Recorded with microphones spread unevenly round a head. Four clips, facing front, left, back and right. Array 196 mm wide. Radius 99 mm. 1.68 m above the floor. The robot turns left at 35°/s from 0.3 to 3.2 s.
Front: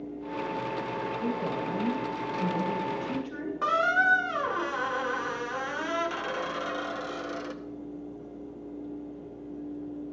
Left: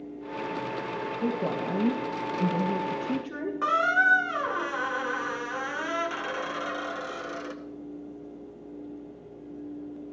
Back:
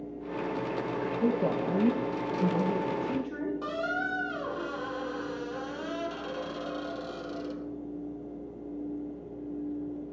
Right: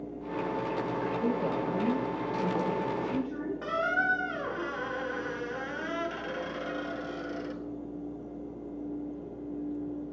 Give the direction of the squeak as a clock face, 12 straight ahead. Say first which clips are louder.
Left 6 dB, front 7 dB; 11 o'clock.